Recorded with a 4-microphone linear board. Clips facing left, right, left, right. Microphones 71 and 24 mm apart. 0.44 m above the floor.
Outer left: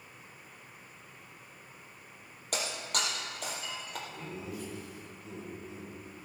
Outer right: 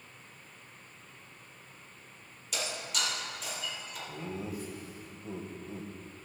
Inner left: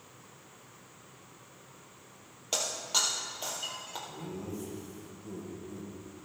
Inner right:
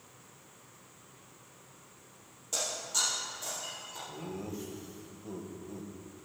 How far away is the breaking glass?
About 3.5 m.